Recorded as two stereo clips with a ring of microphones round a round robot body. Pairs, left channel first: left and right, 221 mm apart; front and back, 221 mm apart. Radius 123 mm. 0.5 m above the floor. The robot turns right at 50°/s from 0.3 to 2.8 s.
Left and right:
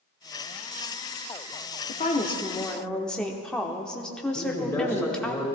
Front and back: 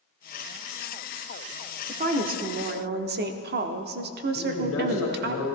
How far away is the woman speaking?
About 0.9 m.